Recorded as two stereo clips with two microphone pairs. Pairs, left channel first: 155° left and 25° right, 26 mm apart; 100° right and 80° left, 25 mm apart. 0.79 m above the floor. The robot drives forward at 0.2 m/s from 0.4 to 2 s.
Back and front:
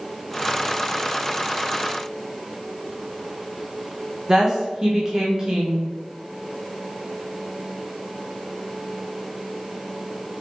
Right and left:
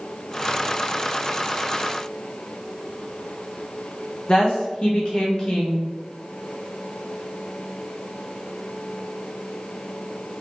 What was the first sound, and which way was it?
A woman speaking, 85° right.